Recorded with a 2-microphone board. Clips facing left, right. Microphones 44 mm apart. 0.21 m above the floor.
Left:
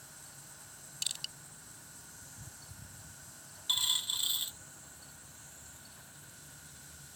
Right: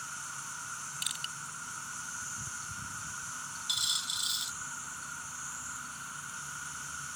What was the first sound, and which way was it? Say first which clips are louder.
An insect: right 14 dB; 90° right.